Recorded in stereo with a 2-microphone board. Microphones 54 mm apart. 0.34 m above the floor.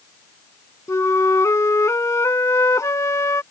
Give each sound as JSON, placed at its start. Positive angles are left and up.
{"t": 0.9, "sound": "a flute", "side_deg": 70}